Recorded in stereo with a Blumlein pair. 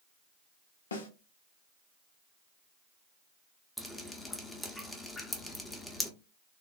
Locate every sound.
0.9 s a snare drum: 70° left, 0.6 m
3.8 s dripping: 5° left, 0.5 m